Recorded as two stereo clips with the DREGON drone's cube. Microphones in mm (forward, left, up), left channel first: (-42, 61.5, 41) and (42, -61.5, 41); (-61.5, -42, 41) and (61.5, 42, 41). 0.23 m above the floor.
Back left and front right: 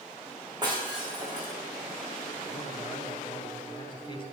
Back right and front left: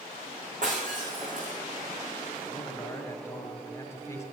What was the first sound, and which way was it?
Breaking glass, 5° left.